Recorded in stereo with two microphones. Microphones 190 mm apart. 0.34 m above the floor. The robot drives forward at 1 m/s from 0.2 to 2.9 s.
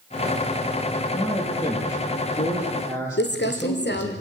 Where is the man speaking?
25° left (ahead or behind), 8 m; by 4.2 s 20° left (ahead or behind), 9.5 m.